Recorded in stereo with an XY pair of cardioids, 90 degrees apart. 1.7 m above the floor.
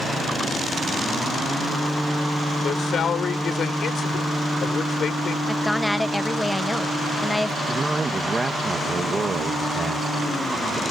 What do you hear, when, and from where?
2.6 s a man speaking: 65° left
5.5 s a woman speaking: 10° left
7.7 s a man speaking: 30° right